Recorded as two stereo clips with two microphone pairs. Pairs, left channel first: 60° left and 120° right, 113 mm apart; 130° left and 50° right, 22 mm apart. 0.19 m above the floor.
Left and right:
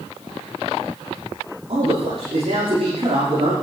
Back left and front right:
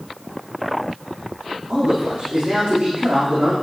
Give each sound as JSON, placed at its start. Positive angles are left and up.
{"t": 1.7, "sound": "a man speaking", "azimuth_deg": -80, "distance_m": 8.0}